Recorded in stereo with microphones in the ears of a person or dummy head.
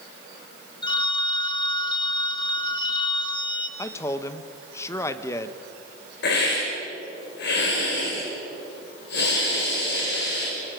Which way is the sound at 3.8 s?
15° left (ahead or behind).